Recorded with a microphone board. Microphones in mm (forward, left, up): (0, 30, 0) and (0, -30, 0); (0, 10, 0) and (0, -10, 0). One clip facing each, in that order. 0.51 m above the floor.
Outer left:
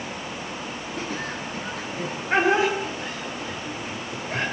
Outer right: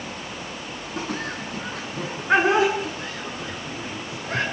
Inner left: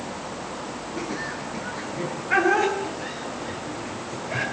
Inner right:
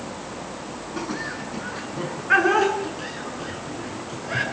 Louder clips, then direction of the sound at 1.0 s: Outer right 2 dB, inner right 2 dB; 80° right.